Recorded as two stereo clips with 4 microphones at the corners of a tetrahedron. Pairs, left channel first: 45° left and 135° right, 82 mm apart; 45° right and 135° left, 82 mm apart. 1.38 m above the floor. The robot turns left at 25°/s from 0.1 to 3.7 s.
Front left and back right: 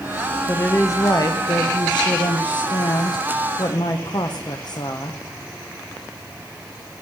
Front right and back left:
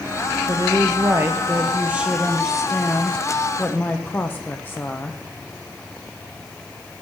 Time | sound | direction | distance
0.5 | a woman speaking | 100° left | 0.7 m